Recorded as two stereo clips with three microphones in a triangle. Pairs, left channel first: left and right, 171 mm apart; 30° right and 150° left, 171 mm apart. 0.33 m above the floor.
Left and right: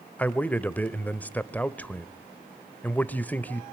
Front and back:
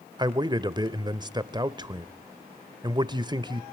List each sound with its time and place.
0.2 s a man speaking: 155° left, 0.9 m